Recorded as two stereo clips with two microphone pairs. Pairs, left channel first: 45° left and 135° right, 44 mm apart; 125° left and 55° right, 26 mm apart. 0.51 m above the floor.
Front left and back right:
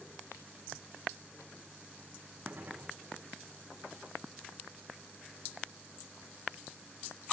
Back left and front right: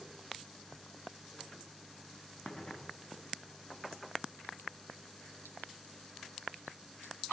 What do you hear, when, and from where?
2.5 s a gunshot: straight behind, 4 m